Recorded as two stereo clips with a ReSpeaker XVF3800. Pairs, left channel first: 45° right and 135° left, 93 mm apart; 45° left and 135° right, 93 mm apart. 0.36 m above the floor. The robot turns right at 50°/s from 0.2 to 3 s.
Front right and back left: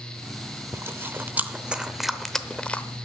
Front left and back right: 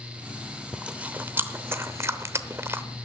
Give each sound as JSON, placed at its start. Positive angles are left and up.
{"t": 0.7, "sound": "chewing", "azimuth_deg": 155, "distance_m": 0.7}